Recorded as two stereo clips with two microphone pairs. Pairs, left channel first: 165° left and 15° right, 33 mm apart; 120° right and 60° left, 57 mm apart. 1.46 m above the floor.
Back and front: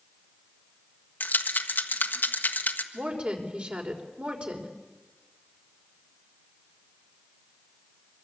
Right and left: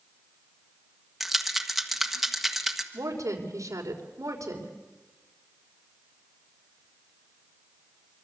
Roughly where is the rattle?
Behind left.